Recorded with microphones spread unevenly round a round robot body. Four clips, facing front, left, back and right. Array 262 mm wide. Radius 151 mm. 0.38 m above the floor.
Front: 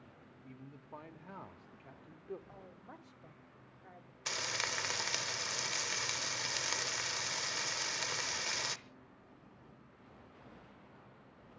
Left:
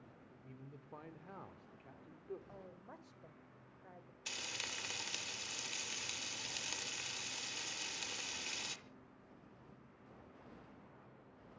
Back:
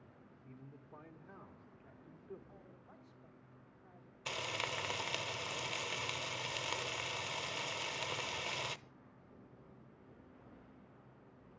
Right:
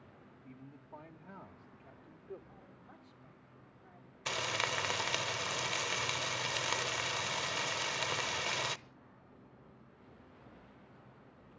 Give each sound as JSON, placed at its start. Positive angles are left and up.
{"t": 0.4, "sound": "a man speaking", "azimuth_deg": 115, "distance_m": 1.2}
{"t": 2.5, "sound": "a woman speaking", "azimuth_deg": 45, "distance_m": 1.6}
{"t": 4.3, "sound": "frying", "azimuth_deg": -95, "distance_m": 0.6}